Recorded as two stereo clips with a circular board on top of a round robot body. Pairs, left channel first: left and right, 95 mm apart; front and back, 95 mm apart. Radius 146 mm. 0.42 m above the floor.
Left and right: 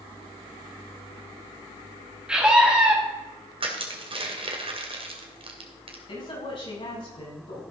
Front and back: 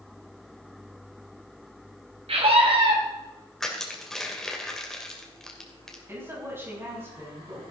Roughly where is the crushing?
Right.